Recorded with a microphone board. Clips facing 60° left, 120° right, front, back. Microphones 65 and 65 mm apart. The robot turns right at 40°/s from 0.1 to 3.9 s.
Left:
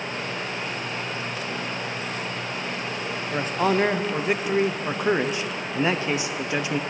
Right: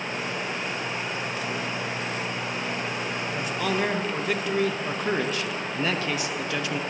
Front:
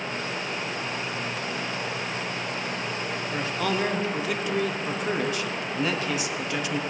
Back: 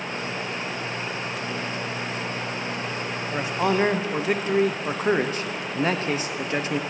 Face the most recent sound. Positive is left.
turn(degrees=125)